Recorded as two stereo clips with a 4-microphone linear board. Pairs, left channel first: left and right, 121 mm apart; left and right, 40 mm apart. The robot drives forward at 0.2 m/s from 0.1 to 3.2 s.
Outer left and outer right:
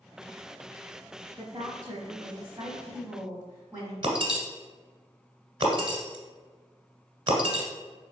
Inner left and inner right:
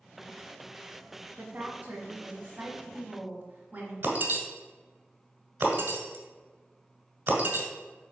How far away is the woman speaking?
About 1.3 m.